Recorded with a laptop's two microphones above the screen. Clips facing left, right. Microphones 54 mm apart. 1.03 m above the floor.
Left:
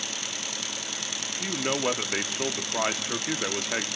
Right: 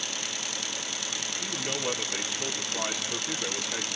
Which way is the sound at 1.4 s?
55° left (ahead or behind).